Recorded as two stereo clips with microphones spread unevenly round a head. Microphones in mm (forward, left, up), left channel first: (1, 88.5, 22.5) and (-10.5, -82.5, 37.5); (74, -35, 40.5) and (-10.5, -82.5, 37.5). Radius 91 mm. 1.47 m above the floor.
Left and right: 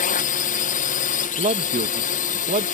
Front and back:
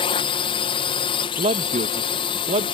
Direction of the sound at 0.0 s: 55° left.